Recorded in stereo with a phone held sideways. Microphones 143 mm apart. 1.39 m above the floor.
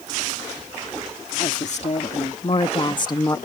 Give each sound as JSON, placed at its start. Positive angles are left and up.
{"t": 1.4, "sound": "a woman speaking", "side_deg": 55}